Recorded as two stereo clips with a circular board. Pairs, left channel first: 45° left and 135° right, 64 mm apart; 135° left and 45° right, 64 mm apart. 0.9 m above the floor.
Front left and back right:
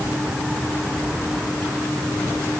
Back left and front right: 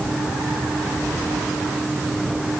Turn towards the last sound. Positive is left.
No sound to turn to.